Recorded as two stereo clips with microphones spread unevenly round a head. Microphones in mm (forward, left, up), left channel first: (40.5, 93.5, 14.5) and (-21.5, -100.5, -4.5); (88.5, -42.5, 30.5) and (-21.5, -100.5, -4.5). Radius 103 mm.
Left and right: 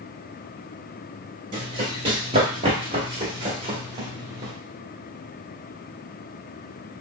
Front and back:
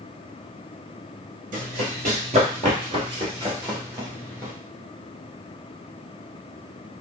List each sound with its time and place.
1.5 s running footsteps: 170° right, 1.7 m; by 4.5 s 50° right, 1.4 m